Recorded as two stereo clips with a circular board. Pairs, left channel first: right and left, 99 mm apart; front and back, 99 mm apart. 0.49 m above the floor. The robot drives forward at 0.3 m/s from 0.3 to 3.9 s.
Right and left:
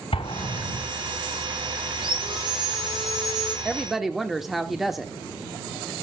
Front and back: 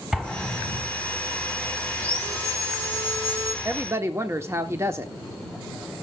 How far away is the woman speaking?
About 0.8 m.